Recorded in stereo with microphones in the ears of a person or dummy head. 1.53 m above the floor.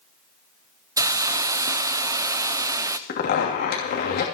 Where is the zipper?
60° left (ahead or behind), 2.5 m.